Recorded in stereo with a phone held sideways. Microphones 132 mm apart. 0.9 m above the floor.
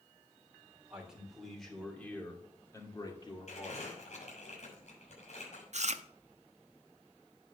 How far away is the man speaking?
About 2.5 m.